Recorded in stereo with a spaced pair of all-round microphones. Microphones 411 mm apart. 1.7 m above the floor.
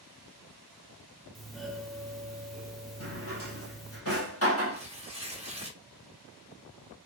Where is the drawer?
35° left (ahead or behind), 1.1 m.